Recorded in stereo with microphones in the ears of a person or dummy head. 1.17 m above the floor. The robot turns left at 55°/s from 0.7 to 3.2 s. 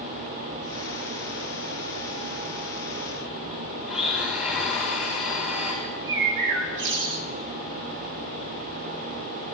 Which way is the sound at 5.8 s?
70° right (ahead or behind).